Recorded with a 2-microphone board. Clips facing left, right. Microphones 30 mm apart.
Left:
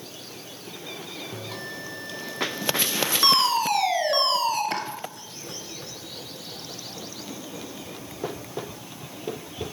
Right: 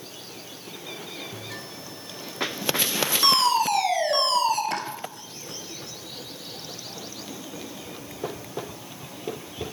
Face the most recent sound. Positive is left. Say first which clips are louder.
# left 1 dB
turn(degrees=15)  # may be behind; listen again after turning